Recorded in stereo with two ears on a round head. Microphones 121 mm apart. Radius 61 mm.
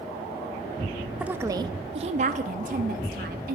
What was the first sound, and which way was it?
A woman speaking, 5° right (ahead or behind).